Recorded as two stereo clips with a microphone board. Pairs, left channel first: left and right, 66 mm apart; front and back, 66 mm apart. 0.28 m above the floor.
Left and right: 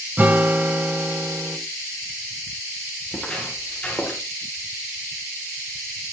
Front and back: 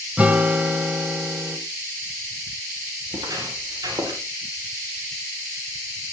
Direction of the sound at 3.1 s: 175° left.